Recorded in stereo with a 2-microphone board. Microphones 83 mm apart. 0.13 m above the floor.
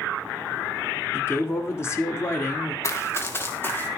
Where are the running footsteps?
35° left (ahead or behind), 1.1 m; by 3.9 s 25° left (ahead or behind), 2.5 m.